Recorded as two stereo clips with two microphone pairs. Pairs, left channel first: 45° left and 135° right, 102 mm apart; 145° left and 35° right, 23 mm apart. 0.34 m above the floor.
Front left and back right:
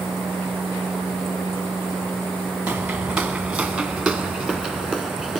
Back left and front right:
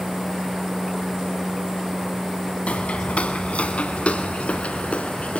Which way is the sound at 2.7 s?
145° left.